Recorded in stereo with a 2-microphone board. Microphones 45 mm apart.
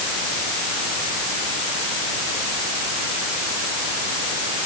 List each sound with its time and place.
Only background noise.